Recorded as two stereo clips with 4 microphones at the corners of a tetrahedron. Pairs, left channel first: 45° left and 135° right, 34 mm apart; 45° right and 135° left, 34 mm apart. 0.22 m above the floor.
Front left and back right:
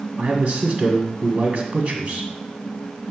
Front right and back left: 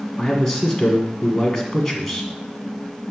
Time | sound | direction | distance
0.2 | a man speaking | 130° right | 1.6 m